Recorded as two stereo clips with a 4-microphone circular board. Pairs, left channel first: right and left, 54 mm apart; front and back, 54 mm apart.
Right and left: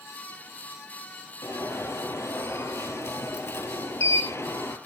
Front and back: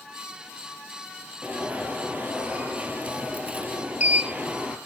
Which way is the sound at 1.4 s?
120° right.